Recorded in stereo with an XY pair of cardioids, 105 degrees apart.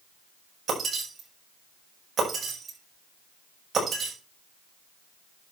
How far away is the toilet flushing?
I don't hear a toilet flushing.